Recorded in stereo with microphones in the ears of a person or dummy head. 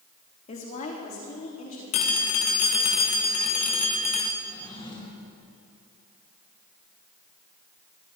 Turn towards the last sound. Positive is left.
turn(degrees=30)  # may be behind; listen again after turning